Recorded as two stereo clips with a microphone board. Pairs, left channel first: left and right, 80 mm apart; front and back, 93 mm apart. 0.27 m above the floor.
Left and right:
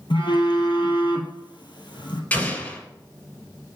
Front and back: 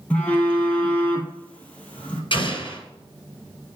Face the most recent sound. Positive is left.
turn(degrees=25)